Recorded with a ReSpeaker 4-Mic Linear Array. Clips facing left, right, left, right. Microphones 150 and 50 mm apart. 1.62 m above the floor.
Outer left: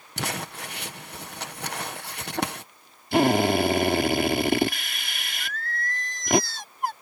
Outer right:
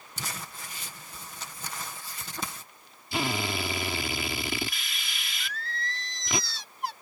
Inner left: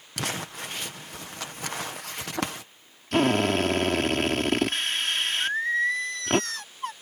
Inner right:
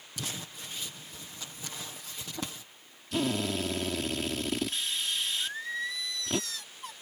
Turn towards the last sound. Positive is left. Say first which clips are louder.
# outer left 4 dB, inner left 10 dB
turn(degrees=50)  # may be behind; listen again after turning